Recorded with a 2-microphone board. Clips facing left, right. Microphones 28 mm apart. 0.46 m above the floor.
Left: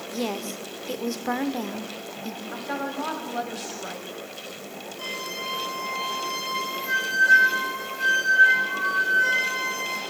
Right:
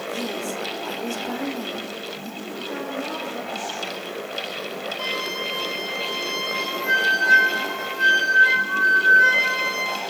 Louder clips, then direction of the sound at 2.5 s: Right 1 dB; 65° left (ahead or behind).